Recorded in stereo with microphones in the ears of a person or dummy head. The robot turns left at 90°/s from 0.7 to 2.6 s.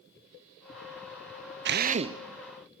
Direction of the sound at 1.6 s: 115° right.